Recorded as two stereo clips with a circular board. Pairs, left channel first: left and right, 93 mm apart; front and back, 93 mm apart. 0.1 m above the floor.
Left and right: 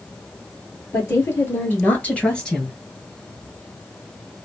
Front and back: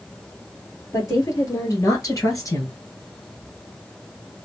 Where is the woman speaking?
45° left, 2 m; by 2.8 s 5° left, 1.6 m.